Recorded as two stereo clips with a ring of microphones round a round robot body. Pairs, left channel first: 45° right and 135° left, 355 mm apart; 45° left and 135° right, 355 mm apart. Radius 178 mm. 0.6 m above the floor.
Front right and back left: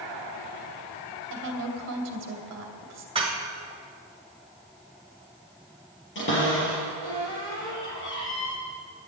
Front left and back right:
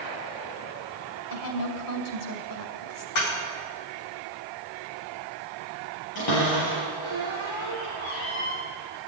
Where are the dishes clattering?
60° left, 2.5 m.